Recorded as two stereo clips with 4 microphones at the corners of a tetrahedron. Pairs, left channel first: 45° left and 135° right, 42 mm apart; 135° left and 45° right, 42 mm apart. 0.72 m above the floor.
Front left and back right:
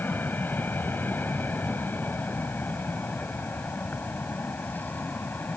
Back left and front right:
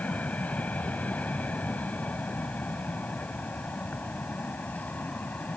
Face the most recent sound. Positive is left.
turn(degrees=85)